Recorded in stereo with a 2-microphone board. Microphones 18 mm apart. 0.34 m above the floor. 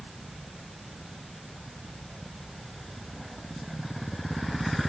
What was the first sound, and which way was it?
Only background noise.